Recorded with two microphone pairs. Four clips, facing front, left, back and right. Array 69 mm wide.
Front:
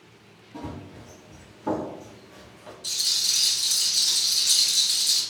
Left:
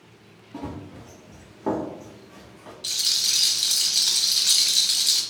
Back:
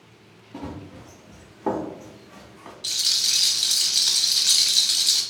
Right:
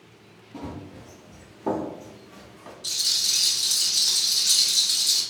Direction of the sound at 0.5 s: 125° left.